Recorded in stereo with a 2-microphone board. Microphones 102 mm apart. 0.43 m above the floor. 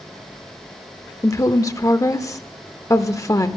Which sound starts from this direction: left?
A woman speaking, at 1.2 s.